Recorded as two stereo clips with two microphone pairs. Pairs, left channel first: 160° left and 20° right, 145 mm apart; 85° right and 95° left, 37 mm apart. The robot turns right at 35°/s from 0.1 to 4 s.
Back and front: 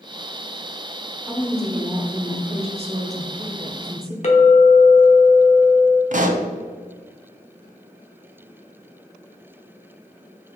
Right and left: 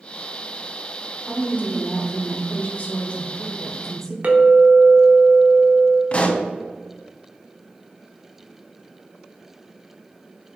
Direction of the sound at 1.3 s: 100° right.